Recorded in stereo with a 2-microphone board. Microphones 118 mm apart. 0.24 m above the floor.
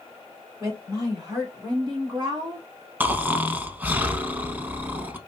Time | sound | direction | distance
0.6 | a woman speaking | 30° right (ahead or behind) | 2.5 m
3.0 | snoring | 15° right (ahead or behind) | 0.5 m